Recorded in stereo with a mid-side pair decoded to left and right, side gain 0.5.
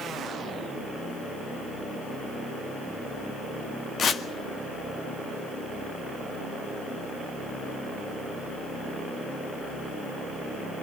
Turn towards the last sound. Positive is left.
turn(degrees=50)